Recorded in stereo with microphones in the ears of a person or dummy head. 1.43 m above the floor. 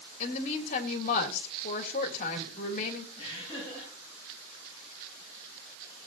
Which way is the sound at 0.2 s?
40° left (ahead or behind).